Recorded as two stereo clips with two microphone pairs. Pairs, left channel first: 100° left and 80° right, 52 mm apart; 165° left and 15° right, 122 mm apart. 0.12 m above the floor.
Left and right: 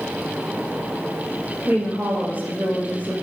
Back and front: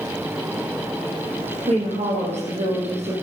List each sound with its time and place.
1.7 s a woman speaking: 25° right, 4.5 m